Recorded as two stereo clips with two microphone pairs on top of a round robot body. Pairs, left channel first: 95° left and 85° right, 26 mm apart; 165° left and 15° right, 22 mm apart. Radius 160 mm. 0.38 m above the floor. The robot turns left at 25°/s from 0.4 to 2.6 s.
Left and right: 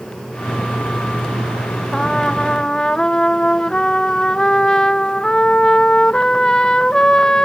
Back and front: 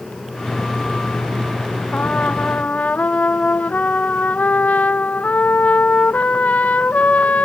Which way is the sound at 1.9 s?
Straight behind.